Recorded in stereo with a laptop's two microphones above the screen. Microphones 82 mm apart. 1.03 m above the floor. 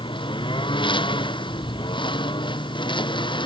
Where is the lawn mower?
80° left; by 3.5 s 70° left (ahead or behind).